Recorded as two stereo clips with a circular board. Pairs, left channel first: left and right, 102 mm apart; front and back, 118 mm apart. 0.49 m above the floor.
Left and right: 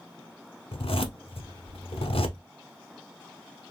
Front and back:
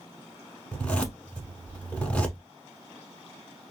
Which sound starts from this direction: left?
A zipper, at 0.7 s.